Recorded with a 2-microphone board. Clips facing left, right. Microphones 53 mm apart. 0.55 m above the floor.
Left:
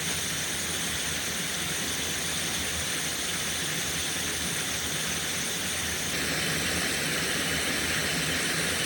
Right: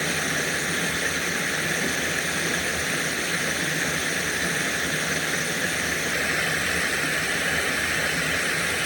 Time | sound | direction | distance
0.0 | running water | 70° right (ahead or behind) | ?